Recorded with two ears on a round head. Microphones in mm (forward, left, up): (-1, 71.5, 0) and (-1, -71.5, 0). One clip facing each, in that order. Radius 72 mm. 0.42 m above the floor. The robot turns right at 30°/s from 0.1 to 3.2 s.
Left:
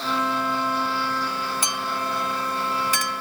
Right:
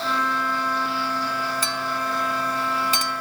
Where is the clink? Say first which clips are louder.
Right 1 dB; 15° left (ahead or behind); by 3.2 s 30° right (ahead or behind).